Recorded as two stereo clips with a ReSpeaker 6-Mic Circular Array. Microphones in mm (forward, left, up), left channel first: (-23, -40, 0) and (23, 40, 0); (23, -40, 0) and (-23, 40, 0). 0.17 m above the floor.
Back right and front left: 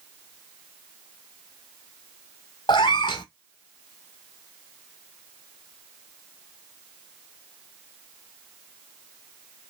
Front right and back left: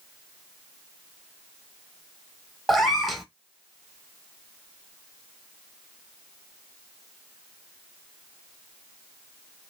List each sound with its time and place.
2.7 s a cat meowing: 150° right, 0.5 m